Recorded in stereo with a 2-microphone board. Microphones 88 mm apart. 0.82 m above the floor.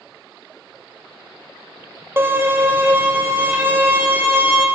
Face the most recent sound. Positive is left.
turn(degrees=-25)  # may be behind; listen again after turning